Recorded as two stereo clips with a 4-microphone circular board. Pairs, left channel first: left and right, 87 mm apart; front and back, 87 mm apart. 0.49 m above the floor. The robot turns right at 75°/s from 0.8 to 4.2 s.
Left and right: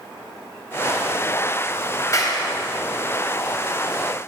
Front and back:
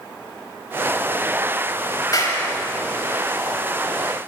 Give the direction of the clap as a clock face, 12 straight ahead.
11 o'clock.